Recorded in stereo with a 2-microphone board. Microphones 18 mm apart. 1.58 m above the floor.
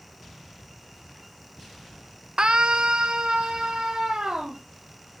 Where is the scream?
55° right (ahead or behind), 1.0 m; by 4.6 s 60° right (ahead or behind), 3.5 m.